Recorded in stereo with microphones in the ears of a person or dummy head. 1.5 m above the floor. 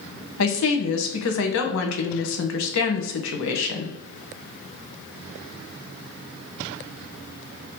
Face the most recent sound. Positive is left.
turn(degrees=75)  # may be behind; listen again after turning